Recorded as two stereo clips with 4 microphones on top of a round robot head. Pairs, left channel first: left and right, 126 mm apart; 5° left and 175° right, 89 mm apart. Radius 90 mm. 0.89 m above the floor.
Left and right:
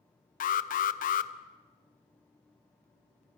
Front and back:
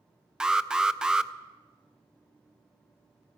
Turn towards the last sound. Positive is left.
turn(degrees=100)